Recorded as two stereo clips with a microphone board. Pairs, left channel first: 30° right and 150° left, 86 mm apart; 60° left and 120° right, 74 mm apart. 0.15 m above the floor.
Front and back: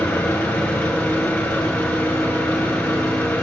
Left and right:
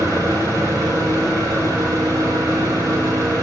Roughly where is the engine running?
Right.